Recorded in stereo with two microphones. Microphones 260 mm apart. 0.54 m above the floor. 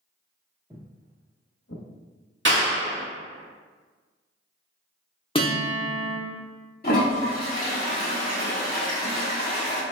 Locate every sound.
0.7 s footsteps: 15° right (ahead or behind), 0.6 m; by 1.8 s 65° left (ahead or behind), 1.2 m
2.5 s a clap: 45° right (ahead or behind), 1.3 m
5.3 s a guitar: 20° left (ahead or behind), 0.8 m
6.8 s a toilet flushing: 35° left (ahead or behind), 1.6 m